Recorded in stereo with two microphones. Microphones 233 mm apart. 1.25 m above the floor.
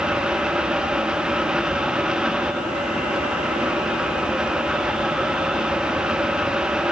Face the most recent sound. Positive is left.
No sound to turn to.